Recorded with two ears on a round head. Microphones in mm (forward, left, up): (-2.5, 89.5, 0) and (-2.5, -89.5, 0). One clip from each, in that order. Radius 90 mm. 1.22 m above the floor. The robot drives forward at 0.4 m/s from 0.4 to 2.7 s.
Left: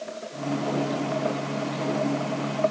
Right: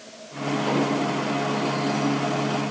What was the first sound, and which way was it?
Only background noise.